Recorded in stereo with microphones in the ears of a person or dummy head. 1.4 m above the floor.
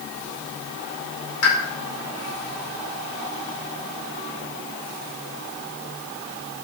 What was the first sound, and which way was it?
A pop, 75° left (ahead or behind).